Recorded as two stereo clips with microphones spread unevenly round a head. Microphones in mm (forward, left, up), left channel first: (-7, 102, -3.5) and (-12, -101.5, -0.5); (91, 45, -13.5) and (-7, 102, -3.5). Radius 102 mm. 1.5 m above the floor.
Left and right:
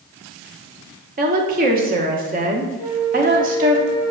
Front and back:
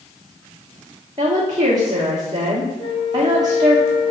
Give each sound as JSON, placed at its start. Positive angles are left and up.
{"t": 1.2, "sound": "a woman speaking", "azimuth_deg": -140, "distance_m": 1.3}
{"t": 2.8, "sound": "a flute", "azimuth_deg": 10, "distance_m": 1.9}